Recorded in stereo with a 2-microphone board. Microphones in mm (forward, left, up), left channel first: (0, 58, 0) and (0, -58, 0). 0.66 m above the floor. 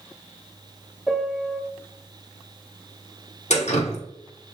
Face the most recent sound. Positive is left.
turn(degrees=70)  # may be behind; listen again after turning